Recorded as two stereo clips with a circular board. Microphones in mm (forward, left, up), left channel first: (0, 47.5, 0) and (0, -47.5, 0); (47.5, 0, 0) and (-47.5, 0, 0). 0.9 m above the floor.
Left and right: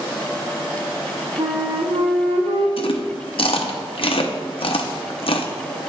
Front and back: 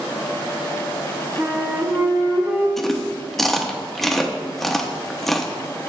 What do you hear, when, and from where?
1.4 s a flute: 110° right, 1.6 m
2.8 s chewing: 85° left, 0.8 m